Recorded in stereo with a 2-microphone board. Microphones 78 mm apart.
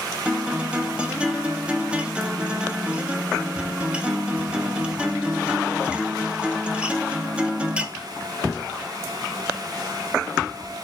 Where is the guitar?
15° right (ahead or behind), 0.7 m.